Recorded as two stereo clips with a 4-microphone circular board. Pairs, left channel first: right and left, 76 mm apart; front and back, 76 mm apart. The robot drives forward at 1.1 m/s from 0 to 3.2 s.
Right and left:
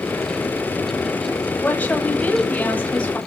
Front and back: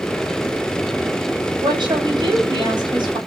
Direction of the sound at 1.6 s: 160° right.